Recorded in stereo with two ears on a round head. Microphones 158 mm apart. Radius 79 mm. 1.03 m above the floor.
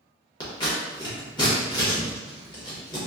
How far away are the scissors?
About 1.1 m.